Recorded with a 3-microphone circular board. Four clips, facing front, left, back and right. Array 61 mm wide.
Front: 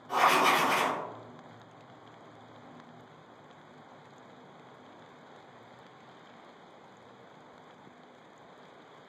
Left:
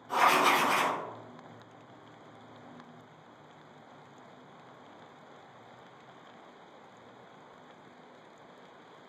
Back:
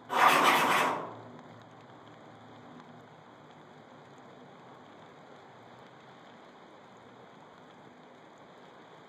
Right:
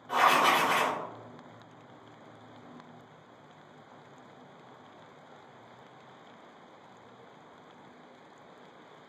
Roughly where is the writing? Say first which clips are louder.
Right 1 dB, back 1 dB; behind right.